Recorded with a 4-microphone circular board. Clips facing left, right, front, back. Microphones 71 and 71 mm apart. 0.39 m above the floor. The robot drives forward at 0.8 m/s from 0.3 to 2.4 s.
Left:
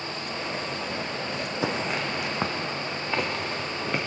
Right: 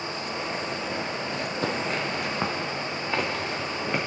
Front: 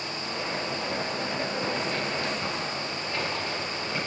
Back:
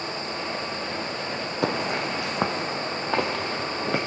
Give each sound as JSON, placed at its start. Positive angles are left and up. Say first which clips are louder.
{"t": 1.6, "sound": "footsteps", "louder": "left 1 dB, back 3 dB", "azimuth_deg": 170, "distance_m": 1.0}